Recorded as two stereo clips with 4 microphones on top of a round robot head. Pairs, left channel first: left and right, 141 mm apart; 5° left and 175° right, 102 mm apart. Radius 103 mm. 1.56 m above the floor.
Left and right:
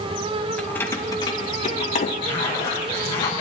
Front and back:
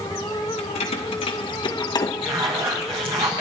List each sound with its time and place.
0.6 s keys jangling: 10° left, 1.4 m; by 2.1 s 55° left, 1.5 m
2.2 s a zipper: 160° left, 5 m